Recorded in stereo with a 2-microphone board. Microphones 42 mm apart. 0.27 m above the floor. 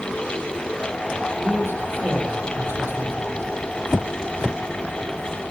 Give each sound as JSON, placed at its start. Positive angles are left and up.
{"t": 1.4, "sound": "a man speaking", "side_deg": -65, "distance_m": 8.5}